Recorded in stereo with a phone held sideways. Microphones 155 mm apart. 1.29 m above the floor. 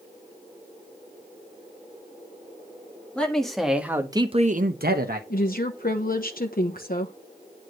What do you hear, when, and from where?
3.1 s a man speaking: 5° left (ahead or behind), 2.5 m; by 5.2 s 70° right (ahead or behind), 1.4 m
5.3 s a woman speaking: 70° left (ahead or behind), 1.1 m